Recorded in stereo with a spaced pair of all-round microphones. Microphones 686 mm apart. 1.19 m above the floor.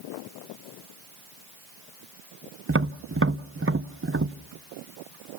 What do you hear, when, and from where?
2.7 s tapping: 20° right (ahead or behind), 0.6 m